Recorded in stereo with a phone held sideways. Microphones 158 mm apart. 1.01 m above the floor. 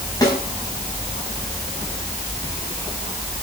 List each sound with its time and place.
0.2 s a snare drum: 25° left (ahead or behind), 5.5 m